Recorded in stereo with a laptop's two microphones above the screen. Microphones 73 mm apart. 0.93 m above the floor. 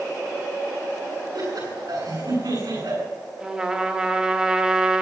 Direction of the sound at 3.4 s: 15° right (ahead or behind).